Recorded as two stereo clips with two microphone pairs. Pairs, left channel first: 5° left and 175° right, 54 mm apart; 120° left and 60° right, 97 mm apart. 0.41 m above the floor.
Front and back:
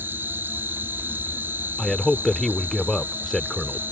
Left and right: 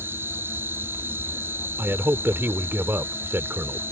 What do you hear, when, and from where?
0.0 s an insect: 125° right
1.8 s a man speaking: 70° right